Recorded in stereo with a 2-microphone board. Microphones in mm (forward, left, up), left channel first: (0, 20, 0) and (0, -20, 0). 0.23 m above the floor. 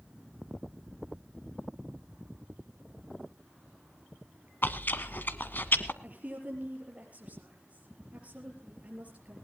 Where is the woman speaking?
40° right (ahead or behind), 6.5 m.